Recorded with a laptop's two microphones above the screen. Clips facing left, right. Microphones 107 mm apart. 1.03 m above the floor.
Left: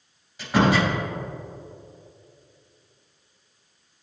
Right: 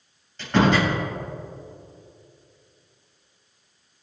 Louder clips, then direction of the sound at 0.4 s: Right 1 dB; 10° left (ahead or behind).